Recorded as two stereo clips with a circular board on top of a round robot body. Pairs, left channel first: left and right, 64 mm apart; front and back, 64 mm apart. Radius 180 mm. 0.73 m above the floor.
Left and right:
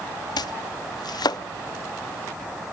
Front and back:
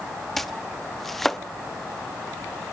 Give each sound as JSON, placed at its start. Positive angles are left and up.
{"t": 0.4, "sound": "chopping", "azimuth_deg": 85, "distance_m": 0.7}